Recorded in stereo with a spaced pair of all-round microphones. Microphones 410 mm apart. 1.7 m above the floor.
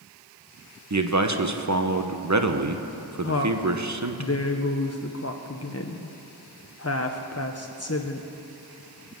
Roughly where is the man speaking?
Right.